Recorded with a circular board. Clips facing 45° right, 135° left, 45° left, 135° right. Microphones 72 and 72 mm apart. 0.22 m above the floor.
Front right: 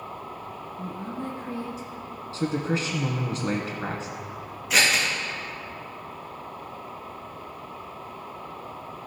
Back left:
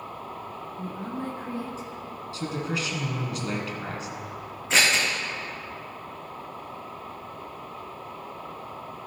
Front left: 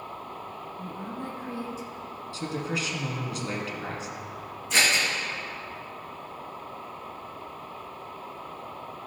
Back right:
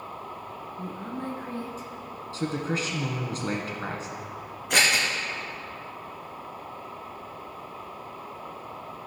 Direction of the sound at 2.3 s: 95° right.